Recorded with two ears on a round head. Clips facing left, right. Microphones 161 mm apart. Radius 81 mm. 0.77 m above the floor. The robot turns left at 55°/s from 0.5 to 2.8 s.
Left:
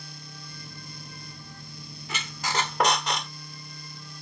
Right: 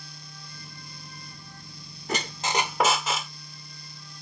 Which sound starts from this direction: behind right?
A squeak, at 2.1 s.